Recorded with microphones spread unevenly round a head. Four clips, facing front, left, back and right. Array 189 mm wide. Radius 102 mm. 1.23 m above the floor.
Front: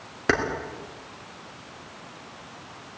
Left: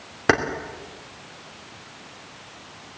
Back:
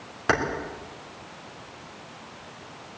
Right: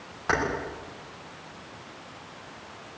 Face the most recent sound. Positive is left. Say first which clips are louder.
# left 7 dB, even
turn(degrees=75)